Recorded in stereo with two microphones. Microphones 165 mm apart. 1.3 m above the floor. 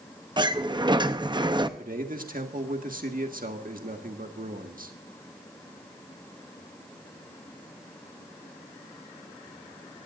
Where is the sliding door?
25° right (ahead or behind), 0.7 m.